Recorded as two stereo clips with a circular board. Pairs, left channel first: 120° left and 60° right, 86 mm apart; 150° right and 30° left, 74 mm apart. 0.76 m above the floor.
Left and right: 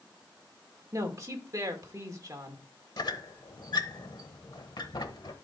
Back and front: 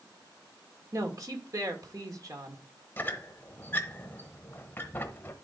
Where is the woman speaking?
10° right, 1.8 m.